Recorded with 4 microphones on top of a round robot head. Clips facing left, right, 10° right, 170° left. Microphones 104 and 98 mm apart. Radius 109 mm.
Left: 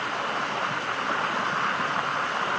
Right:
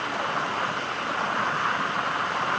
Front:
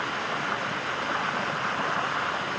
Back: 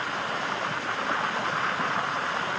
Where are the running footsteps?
No running footsteps in this recording.